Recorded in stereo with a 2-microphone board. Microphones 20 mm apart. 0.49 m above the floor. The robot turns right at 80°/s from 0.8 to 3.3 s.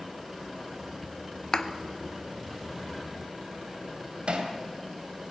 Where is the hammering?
60° right (ahead or behind), 2.5 m.